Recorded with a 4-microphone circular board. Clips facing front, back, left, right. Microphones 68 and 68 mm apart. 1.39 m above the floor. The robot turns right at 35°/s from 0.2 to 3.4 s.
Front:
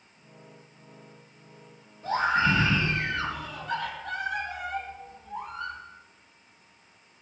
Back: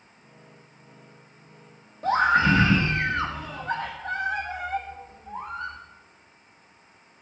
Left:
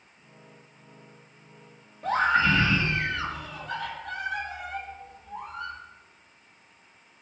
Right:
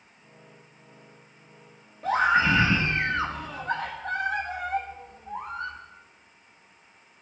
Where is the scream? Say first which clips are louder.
Back 4 dB, right 1 dB; straight behind, 1.5 m; by 5.8 s 130° right, 1.5 m.